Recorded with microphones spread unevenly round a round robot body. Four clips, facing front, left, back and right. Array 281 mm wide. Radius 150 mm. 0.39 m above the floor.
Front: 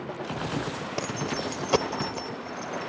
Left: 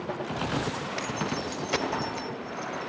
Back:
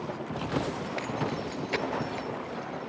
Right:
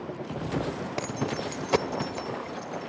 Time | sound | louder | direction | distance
1.0 | keys jangling | right 2 dB, front 2 dB | 30° right | 1.1 m